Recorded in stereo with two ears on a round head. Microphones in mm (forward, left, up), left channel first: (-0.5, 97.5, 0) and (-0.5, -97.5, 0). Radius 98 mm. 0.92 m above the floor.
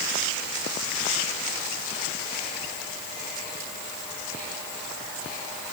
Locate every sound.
Only background noise.